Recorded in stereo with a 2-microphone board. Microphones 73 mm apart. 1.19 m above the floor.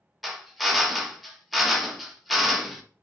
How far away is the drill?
About 0.6 m.